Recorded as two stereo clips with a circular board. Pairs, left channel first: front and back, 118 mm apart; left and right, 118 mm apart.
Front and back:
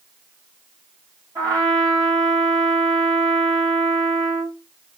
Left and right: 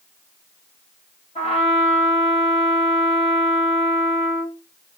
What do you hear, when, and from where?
1.4 s a trumpet: 120° left, 2.5 m